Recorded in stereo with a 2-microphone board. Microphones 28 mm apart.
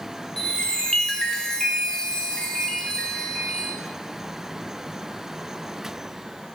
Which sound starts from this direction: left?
A chime, at 0.4 s.